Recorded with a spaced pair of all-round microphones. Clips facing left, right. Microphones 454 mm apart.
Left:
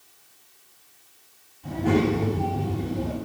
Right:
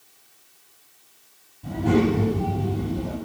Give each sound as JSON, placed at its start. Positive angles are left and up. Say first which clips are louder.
{"t": 1.6, "sound": "a child speaking", "louder": "right 2 dB", "side_deg": -55, "distance_m": 5.0}